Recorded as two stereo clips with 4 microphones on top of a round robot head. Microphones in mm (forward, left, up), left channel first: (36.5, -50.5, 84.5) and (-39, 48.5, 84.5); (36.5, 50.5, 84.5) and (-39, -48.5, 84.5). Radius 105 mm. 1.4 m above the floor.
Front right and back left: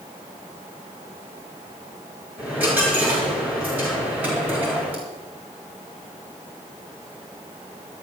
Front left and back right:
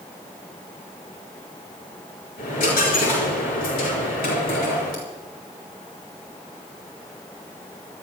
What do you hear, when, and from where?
2.4 s a dropped coin: 50° left, 4.5 m